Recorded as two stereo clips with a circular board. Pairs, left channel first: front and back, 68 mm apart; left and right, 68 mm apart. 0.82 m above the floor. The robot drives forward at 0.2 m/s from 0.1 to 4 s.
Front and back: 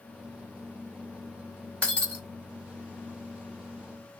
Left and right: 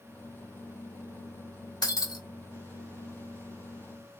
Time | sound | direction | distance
1.8 | breaking glass | 70° left | 1.3 m